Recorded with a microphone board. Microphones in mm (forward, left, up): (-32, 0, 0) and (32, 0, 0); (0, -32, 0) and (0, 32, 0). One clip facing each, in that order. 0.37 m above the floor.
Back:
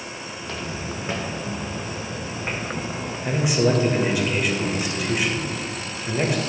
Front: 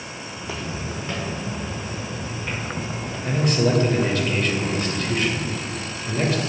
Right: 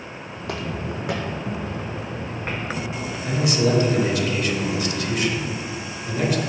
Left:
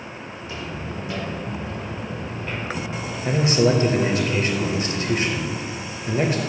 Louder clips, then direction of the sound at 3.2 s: Even, left 2 dB; 105° left.